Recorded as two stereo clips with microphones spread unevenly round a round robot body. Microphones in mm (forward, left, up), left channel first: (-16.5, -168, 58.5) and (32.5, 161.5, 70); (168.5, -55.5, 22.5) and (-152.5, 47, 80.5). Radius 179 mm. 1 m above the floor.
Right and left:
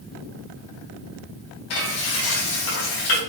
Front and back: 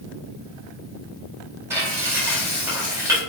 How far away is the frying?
About 4 m.